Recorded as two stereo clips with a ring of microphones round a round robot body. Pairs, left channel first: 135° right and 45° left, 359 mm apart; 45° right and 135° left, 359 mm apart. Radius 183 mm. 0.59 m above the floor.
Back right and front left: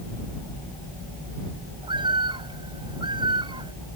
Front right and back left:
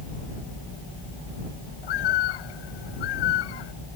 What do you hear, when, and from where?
1.8 s a bird: 30° right